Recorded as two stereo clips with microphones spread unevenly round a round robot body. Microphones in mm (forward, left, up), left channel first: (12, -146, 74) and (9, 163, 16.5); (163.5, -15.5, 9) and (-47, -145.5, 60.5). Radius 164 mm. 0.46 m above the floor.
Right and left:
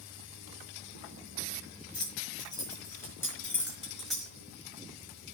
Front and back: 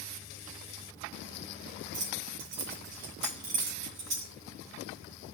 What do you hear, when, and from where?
1.9 s keys jangling: 165° right, 6.5 m; by 4.3 s straight behind, 5.5 m